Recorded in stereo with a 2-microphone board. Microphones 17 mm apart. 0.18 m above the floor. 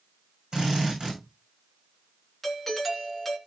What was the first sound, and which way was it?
A drill, 50° right (ahead or behind).